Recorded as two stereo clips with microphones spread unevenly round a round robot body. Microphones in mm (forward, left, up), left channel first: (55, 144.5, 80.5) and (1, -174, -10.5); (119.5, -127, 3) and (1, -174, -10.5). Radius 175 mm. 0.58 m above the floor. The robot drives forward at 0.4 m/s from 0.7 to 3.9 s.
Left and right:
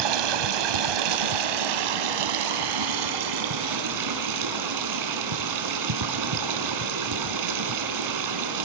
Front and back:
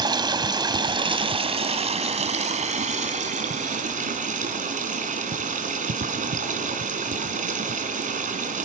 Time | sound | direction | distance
0.0 | running water | 95° right | 1.3 m